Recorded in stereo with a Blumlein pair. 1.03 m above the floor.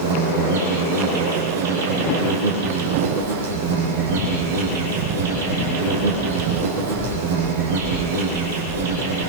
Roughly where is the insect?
Ahead right.